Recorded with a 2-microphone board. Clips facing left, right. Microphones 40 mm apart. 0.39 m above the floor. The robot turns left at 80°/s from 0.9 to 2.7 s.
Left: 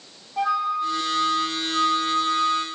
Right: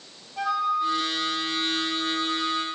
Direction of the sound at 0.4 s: 150° left.